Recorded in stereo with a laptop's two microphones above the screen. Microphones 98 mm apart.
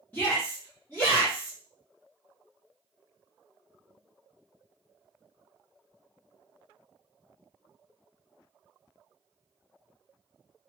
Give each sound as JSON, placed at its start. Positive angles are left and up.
{"t": 0.1, "sound": "a shout", "side_deg": 20, "distance_m": 0.7}